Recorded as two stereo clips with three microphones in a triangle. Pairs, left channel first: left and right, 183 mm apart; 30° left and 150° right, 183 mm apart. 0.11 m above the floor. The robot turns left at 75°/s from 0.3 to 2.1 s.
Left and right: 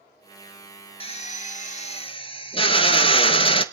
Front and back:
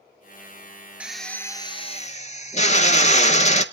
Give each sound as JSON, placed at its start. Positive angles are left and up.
{"t": 1.0, "sound": "a drill", "azimuth_deg": 130, "distance_m": 0.7}